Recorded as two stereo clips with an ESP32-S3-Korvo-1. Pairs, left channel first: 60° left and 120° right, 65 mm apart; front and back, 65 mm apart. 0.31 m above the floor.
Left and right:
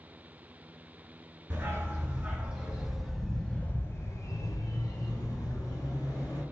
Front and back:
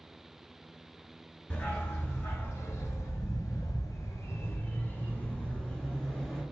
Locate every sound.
1.5 s a dog barking: 60° right, 1.5 m; by 6.4 s 80° left, 1.6 m